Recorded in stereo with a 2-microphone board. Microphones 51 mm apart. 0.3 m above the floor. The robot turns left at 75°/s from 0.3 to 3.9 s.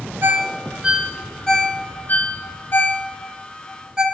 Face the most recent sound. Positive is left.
turn(degrees=-20)  # may be behind; listen again after turning